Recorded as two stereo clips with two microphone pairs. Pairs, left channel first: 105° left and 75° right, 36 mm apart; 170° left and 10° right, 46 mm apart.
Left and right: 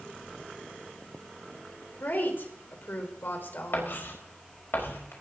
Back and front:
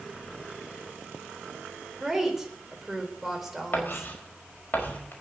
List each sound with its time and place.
2.0 s a woman speaking: 75° left, 4 m
3.7 s writing: 125° left, 5 m